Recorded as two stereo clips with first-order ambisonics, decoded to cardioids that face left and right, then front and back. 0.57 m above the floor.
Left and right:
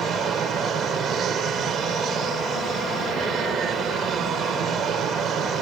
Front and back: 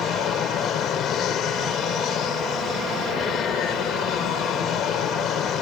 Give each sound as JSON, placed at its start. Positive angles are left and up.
{"t": 0.0, "sound": "an aircraft", "azimuth_deg": -40}